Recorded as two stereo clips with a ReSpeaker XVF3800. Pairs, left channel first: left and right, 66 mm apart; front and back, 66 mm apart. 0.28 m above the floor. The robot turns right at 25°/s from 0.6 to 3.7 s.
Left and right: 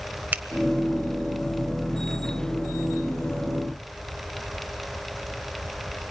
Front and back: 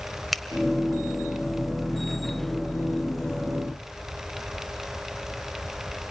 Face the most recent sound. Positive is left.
turn(degrees=-10)